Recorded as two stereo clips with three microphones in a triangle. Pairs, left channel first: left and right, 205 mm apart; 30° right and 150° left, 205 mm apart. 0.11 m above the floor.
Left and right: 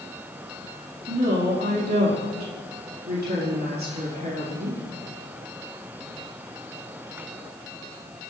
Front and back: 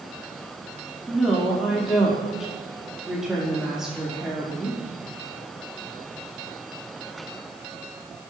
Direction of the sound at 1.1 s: 120° right.